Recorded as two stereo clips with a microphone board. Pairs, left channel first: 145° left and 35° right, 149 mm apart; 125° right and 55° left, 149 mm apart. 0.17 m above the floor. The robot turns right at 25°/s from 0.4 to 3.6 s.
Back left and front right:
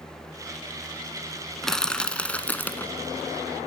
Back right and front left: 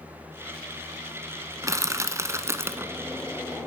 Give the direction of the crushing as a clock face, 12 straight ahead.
10 o'clock.